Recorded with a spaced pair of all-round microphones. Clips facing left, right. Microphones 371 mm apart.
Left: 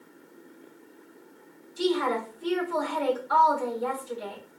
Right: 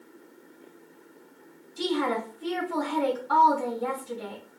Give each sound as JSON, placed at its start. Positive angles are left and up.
{"t": 1.8, "sound": "a woman speaking", "side_deg": -75, "distance_m": 3.0}